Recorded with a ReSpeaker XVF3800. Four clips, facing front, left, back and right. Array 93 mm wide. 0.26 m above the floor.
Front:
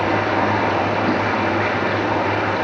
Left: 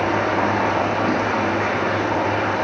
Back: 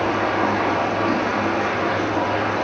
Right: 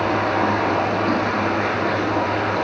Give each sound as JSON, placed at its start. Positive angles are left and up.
{"t": 0.0, "sound": "running water", "azimuth_deg": 20, "distance_m": 2.5}